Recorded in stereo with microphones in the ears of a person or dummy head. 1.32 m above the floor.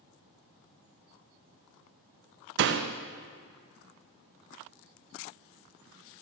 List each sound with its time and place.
2.6 s a door slam: 65° right (ahead or behind), 0.5 m